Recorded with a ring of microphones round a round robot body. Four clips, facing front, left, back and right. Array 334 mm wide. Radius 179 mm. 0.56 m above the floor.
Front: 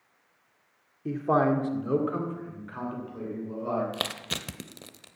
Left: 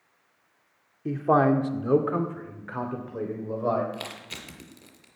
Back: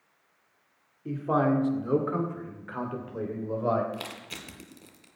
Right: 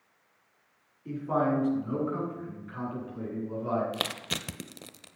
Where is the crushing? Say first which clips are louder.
Right 3 dB, front 4 dB; 45° right, 0.8 m.